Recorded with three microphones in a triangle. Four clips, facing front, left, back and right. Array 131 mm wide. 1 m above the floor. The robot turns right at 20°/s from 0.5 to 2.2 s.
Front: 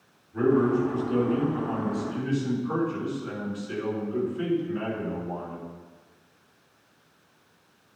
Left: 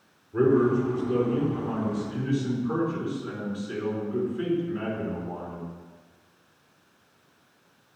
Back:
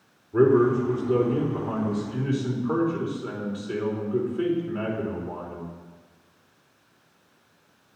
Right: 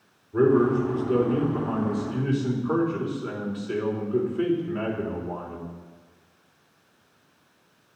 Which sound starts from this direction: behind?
A man speaking, at 0.3 s.